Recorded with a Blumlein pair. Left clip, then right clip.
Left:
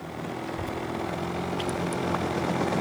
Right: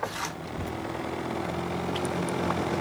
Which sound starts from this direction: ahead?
A child speaking, at 0.4 s.